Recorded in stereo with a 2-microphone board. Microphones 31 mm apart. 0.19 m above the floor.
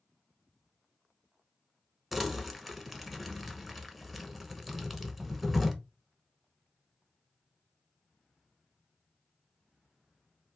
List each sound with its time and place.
2.1 s crumpling: 5° right (ahead or behind), 0.6 m